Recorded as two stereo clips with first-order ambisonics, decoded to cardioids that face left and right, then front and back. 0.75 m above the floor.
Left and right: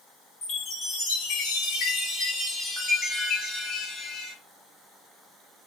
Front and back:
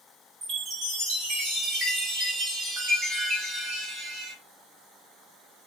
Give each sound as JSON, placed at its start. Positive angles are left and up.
{"t": 0.4, "sound": "a chime", "azimuth_deg": 145, "distance_m": 1.5}